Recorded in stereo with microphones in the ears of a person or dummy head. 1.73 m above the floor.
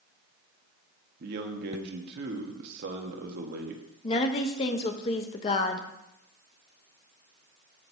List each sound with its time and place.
1.2 s a man speaking: 55° right (ahead or behind), 1.2 m
4.0 s a woman speaking: 35° left (ahead or behind), 0.8 m